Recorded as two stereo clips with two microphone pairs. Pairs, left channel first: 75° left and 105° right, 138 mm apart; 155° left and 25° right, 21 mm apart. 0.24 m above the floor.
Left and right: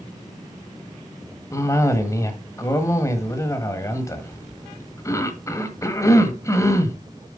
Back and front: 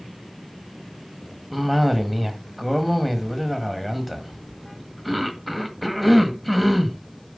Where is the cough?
75° left, 1.4 m.